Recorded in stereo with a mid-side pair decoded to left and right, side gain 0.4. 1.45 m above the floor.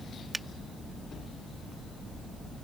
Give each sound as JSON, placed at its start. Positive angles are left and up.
{"t": 0.3, "sound": "a finger snap", "azimuth_deg": -15}